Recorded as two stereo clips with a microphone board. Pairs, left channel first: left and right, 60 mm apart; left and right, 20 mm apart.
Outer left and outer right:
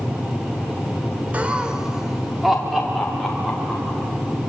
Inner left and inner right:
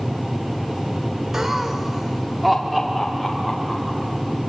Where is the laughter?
25° right (ahead or behind), 1.0 m; by 4.0 s centre (ahead or behind), 4.5 m.